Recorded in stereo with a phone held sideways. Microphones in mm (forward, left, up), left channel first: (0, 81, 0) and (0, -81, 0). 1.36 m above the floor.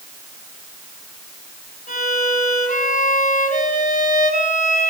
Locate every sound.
1.9 s a violin: 55° left (ahead or behind), 6 m